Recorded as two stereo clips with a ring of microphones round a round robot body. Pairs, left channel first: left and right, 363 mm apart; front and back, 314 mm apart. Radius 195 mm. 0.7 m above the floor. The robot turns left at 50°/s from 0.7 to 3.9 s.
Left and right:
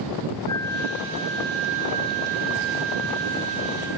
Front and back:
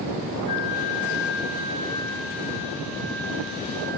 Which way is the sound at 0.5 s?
10° left.